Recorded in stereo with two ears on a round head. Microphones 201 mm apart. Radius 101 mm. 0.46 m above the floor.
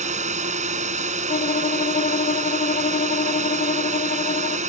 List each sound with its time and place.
0.0 s a drone: 30° right (ahead or behind)
1.3 s a violin: 30° left (ahead or behind)